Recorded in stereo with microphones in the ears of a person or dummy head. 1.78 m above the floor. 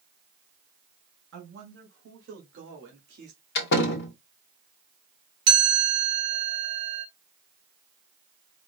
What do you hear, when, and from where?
1.3 s a man speaking: 75° right (ahead or behind), 2 m; by 3.4 s 50° right (ahead or behind), 1.4 m
3.5 s a door slam: 65° left (ahead or behind), 1.1 m
5.5 s a chime: 60° right (ahead or behind), 1.7 m